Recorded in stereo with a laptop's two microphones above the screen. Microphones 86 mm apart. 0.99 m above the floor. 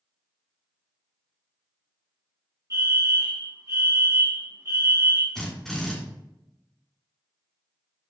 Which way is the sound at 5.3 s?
5° left (ahead or behind).